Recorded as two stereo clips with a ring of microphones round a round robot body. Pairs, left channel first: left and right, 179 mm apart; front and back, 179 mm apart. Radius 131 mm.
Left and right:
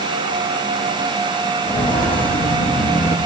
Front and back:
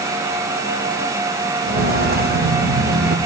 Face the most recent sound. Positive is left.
turn(degrees=150)